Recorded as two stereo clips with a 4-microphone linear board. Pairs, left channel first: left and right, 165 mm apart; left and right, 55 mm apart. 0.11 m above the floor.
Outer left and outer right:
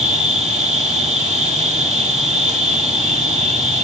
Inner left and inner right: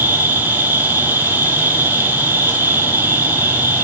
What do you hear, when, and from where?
0.0 s an insect: 40° right (ahead or behind), 0.9 m